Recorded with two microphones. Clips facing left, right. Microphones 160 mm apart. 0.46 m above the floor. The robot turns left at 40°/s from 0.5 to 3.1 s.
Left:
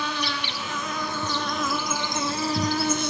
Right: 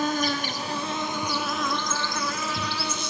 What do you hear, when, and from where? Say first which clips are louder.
0.0 s an insect: right 5 dB; 135° right, 1.1 m; by 3.1 s 120° left, 1.1 m